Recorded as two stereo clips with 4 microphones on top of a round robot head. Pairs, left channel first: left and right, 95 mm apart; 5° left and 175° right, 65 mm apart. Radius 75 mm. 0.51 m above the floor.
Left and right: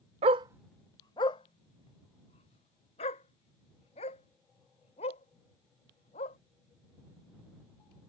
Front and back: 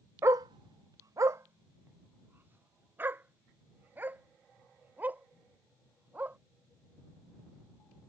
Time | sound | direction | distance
0.2 | a dog barking | 115° right | ?